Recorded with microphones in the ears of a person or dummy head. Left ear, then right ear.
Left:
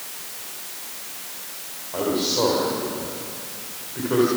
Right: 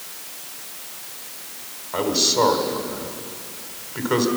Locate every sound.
1.9 s a man speaking: 65° right (ahead or behind), 4 m